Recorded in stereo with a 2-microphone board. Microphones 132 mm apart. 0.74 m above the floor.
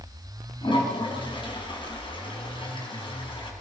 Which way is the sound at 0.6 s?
40° left (ahead or behind).